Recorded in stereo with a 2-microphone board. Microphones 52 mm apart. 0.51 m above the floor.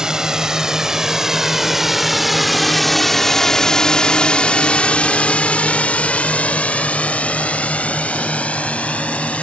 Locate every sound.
0.0 s a drone: 10° right (ahead or behind); by 9.4 s 25° left (ahead or behind)